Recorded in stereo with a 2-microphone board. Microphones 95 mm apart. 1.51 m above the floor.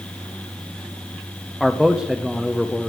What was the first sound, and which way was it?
A man speaking, centre (ahead or behind).